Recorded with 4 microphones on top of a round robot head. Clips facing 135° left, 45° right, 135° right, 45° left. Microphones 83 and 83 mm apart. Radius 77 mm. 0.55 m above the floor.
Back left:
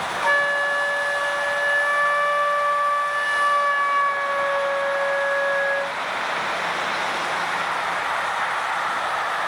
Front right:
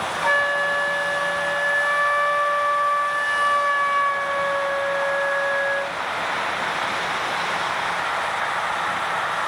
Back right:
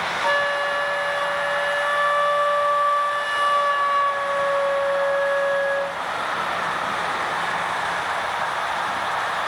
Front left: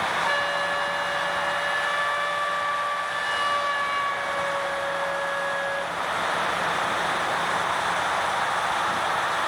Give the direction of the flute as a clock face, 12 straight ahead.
4 o'clock.